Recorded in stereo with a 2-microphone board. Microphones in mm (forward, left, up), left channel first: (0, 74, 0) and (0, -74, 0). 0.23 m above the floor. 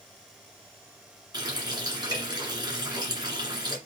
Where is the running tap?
30° right (ahead or behind), 1.9 m.